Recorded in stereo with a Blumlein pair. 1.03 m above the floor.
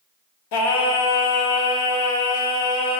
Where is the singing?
45° left, 1.4 m.